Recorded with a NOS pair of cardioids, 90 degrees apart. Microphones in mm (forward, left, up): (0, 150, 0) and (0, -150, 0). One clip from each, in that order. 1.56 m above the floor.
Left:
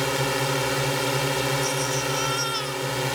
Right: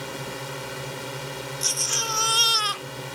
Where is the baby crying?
65° right.